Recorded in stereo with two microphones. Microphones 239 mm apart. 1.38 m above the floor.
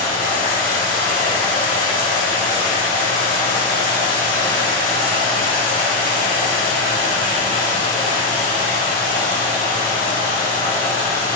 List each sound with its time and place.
0.0 s running water: 35° left (ahead or behind), 1.2 m